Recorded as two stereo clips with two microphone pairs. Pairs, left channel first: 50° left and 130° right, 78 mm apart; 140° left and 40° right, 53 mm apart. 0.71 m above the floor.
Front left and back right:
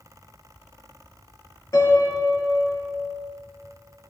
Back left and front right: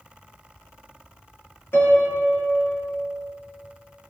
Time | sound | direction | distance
1.7 | a piano | 100° left | 4 m